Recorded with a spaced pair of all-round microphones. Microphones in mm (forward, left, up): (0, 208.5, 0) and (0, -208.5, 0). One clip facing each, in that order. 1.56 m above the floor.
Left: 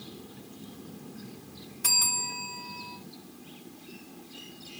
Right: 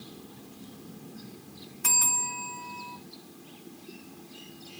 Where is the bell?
50° left (ahead or behind), 2 m.